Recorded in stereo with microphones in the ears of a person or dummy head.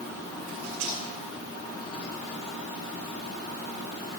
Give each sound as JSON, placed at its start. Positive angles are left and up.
{"t": 0.5, "sound": "cutlery clinking", "side_deg": -80, "distance_m": 7.5}